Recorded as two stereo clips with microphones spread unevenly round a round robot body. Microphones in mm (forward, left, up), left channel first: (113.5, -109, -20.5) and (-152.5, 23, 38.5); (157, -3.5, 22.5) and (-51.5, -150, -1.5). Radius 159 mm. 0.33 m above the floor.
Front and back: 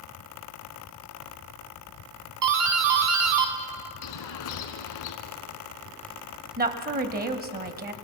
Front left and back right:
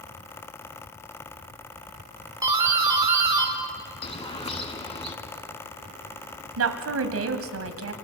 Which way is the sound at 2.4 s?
150° left.